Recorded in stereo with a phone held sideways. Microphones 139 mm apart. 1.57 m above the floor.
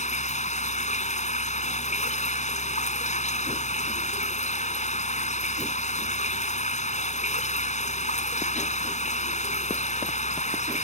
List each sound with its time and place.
0.0 s running water: 55° left (ahead or behind)